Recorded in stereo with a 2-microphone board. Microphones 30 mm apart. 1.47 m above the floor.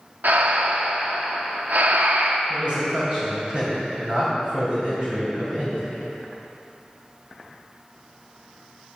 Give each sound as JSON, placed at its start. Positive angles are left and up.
{"t": 0.2, "sound": "breathing", "side_deg": -75, "distance_m": 0.8}
{"t": 2.5, "sound": "a man speaking", "side_deg": -40, "distance_m": 3.0}